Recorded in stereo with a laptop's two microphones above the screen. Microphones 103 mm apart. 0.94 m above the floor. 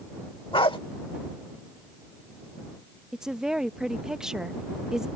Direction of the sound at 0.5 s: 60° left (ahead or behind).